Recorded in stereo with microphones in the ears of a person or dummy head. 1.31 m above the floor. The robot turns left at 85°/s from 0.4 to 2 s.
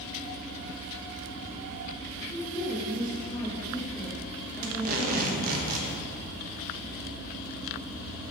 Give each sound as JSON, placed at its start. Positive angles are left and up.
{"t": 2.3, "sound": "a woman speaking", "side_deg": 15, "distance_m": 1.8}
{"t": 4.6, "sound": "tape being pulled", "side_deg": -45, "distance_m": 1.0}